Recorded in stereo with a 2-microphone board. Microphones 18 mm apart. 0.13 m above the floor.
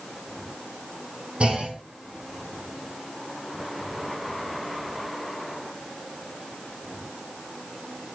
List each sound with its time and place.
1.4 s a clunk: 75° right (ahead or behind), 2.5 m